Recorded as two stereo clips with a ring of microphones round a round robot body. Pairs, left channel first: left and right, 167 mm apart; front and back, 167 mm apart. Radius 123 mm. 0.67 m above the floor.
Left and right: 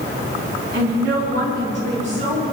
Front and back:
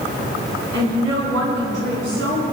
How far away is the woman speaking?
About 4.5 m.